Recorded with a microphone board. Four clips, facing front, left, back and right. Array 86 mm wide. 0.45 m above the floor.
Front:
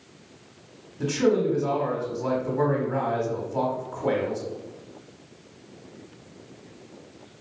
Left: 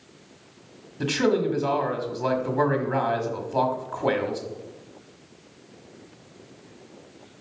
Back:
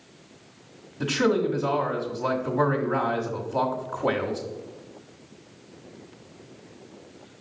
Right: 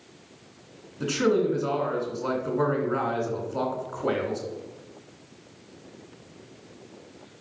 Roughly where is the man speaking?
Left.